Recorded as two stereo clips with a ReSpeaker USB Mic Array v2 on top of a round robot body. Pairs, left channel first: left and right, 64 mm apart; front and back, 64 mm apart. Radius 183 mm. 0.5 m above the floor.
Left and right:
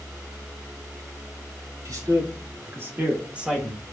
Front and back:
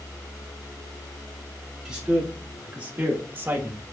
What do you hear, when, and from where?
1.9 s a man speaking: 110° right, 1.8 m; by 3.8 s 175° left, 1.1 m